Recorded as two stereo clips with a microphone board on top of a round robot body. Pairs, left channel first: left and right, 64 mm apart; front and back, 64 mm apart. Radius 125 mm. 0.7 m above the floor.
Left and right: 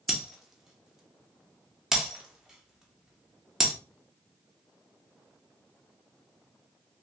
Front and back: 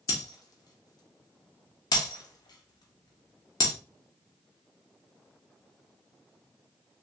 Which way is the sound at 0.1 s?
5° right.